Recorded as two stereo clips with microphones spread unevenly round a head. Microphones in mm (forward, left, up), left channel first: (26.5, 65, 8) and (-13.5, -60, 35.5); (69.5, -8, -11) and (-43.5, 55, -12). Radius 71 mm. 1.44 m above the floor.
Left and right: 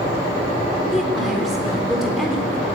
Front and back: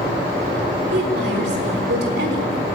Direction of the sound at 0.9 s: 165° left.